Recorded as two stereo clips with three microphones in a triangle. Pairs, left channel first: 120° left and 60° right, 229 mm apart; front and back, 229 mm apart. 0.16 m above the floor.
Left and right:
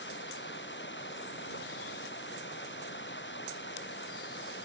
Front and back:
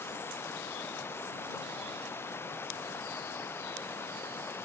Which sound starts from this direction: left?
Running water, at 0.0 s.